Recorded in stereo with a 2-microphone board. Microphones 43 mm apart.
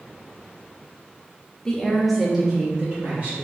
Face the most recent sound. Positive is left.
turn(degrees=-20)  # may be behind; listen again after turning